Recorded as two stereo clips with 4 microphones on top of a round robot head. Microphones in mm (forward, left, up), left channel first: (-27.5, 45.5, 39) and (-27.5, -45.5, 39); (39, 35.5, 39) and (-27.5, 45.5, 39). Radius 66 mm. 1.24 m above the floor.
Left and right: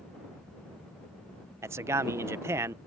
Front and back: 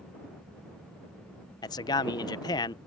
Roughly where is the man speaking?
Ahead right.